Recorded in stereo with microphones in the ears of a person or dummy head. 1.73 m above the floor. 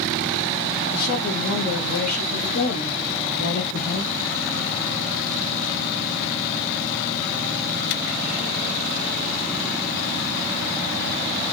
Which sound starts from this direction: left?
A woman speaking, at 0.9 s.